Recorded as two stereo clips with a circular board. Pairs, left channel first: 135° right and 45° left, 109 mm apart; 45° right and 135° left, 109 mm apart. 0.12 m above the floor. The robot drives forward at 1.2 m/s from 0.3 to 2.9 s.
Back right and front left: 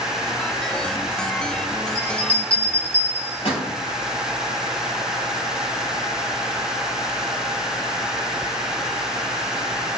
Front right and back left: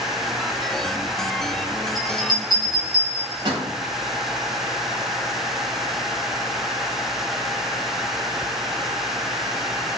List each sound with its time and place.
1.9 s a bell: 175° right, 3.5 m